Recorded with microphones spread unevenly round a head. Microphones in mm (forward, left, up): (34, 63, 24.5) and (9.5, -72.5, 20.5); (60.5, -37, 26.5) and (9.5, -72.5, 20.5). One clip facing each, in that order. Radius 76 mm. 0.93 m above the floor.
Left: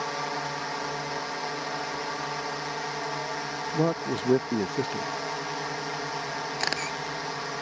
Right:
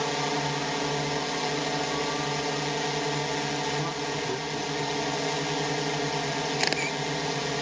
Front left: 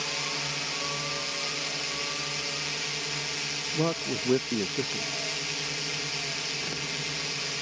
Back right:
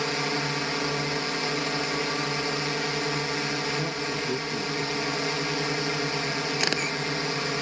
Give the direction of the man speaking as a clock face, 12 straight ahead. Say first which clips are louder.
Left 4 dB, even; 9 o'clock.